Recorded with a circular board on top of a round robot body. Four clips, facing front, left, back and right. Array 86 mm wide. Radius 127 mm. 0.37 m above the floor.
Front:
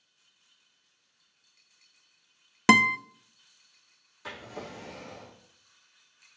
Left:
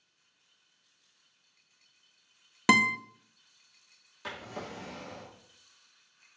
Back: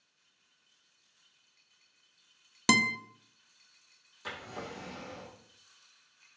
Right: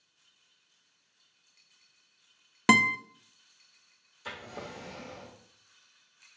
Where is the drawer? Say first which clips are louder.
Left 1 dB, front 1 dB; 90° left, 5 m.